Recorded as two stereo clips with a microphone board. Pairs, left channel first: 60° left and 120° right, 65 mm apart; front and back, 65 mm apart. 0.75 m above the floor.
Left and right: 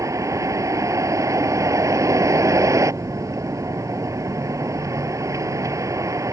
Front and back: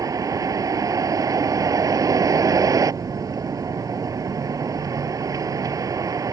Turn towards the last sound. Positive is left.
turn(degrees=-155)